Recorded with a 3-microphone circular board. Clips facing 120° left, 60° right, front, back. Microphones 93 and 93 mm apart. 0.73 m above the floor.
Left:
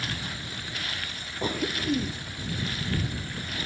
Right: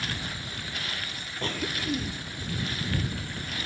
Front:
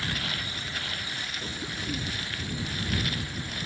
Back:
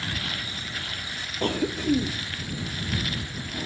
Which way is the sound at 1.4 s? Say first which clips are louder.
Left 3 dB, back 15 dB; 160° right.